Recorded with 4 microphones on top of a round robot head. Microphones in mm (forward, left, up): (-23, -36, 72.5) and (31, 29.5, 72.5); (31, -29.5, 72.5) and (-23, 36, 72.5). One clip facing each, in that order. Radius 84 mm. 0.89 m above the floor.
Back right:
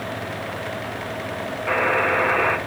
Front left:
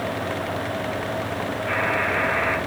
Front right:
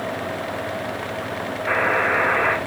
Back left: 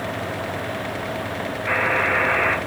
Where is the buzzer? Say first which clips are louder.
Back right 5 dB, front right 1 dB; 110° right, 1.4 m.